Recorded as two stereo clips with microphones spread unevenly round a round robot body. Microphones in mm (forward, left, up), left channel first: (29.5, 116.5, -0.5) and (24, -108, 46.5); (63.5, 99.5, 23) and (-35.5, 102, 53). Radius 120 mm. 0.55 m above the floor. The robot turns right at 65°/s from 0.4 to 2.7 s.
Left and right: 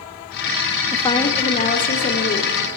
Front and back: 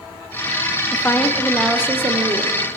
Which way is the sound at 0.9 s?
25° left.